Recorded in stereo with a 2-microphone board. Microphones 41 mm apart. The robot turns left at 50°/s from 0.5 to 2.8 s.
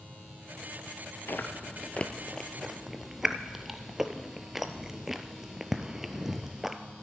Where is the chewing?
60° left (ahead or behind), 0.7 m; by 6.8 s 5° right (ahead or behind), 0.7 m.